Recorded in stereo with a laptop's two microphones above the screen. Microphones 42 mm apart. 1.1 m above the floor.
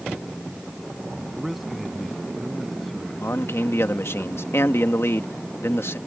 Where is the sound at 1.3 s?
5° right (ahead or behind); by 3.5 s 10° left (ahead or behind).